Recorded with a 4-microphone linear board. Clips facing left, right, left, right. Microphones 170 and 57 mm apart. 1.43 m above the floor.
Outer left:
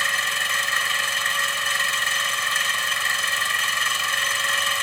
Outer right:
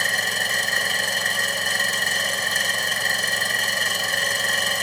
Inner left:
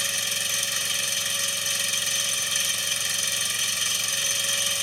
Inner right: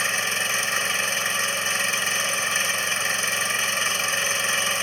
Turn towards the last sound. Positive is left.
turn(degrees=-35)  # may be behind; listen again after turning